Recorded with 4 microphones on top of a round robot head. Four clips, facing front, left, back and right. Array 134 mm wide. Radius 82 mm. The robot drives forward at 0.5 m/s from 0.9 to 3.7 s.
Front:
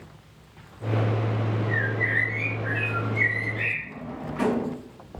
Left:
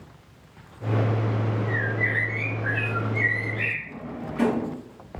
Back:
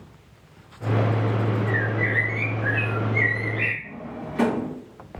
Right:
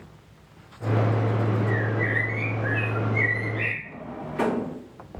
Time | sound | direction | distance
1.7 | a bird | 170° left | 6.5 m
3.8 | a drawer | straight behind | 5.5 m